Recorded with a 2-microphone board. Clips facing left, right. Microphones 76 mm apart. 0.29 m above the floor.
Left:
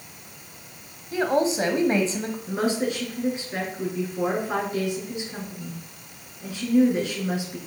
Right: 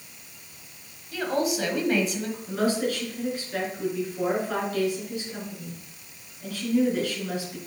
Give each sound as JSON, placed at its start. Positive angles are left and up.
{"t": 1.1, "sound": "a woman speaking", "side_deg": 30, "distance_m": 1.4}
{"t": 2.5, "sound": "a woman speaking", "side_deg": 25, "distance_m": 4.5}